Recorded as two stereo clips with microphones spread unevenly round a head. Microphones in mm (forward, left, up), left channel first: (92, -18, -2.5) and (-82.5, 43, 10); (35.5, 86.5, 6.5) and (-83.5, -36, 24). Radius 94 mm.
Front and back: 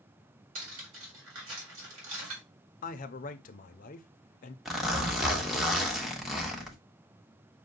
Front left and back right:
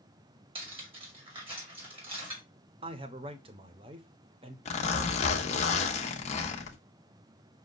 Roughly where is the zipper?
Left.